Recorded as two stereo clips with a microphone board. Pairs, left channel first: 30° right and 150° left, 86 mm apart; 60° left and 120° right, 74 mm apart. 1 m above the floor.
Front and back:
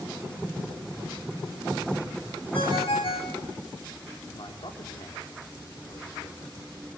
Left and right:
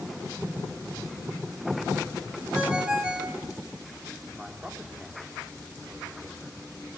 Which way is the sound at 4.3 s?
40° right.